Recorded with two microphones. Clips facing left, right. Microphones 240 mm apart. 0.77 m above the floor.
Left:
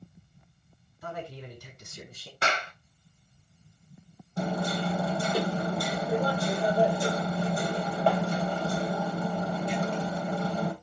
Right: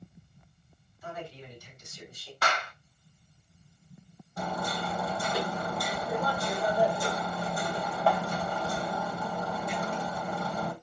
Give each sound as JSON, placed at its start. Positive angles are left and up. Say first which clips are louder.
{"t": 1.0, "sound": "a man speaking", "louder": "left 2 dB", "side_deg": 60, "distance_m": 6.0}
{"t": 2.4, "sound": "a clap", "louder": "left 1 dB", "side_deg": 25, "distance_m": 1.3}
{"t": 4.4, "sound": "hammering", "louder": "left 5 dB", "side_deg": 30, "distance_m": 2.5}